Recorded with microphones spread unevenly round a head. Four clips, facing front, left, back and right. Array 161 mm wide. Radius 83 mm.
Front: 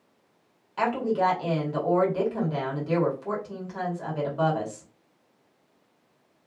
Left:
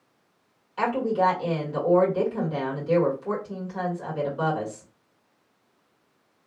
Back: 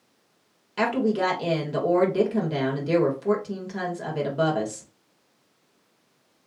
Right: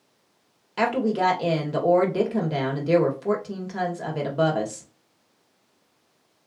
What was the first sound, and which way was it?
A woman speaking, 110° right.